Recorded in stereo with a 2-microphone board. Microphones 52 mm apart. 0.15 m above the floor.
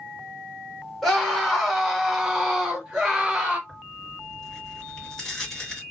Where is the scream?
Centre (ahead or behind), 1.6 m; by 3.6 s 15° right (ahead or behind), 1.4 m.